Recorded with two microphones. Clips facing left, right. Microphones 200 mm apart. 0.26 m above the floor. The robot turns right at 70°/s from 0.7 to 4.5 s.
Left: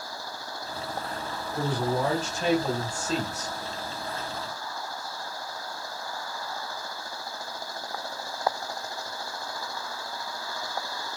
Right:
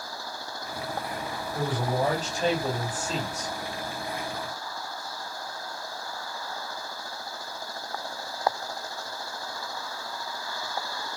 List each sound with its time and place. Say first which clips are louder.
1.5 s a man speaking: left 1 dB; 20° right (ahead or behind), 1.3 m; by 3.6 s 10° left (ahead or behind), 1.3 m